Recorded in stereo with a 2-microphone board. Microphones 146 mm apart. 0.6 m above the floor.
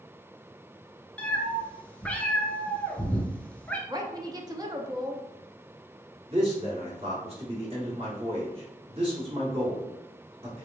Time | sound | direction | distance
1.2 | a cat meowing | 10° left (ahead or behind) | 0.6 m
3.9 | a woman speaking | 25° right (ahead or behind) | 0.6 m
6.3 | a man speaking | 40° right (ahead or behind) | 1.8 m